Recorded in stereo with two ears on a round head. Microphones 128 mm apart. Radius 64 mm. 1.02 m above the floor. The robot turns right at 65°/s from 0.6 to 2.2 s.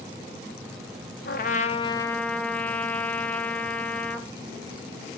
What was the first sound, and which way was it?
A trumpet, 110° left.